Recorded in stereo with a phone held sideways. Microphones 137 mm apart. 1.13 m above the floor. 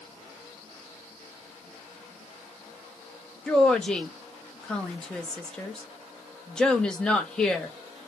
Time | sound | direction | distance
3.5 | a woman speaking | 5° left (ahead or behind) | 0.7 m